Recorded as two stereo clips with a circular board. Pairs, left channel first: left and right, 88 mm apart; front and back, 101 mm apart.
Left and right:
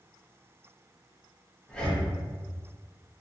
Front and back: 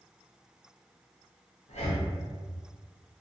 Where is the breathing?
10° left, 0.6 m.